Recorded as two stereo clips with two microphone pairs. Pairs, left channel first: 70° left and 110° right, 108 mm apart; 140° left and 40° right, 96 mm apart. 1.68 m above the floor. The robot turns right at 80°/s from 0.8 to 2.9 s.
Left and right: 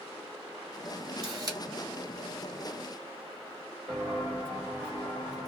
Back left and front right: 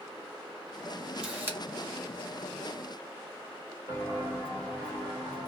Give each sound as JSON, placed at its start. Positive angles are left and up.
{"t": 1.2, "sound": "a camera shutter", "azimuth_deg": -125, "distance_m": 1.0}
{"t": 3.9, "sound": "footsteps", "azimuth_deg": -170, "distance_m": 2.0}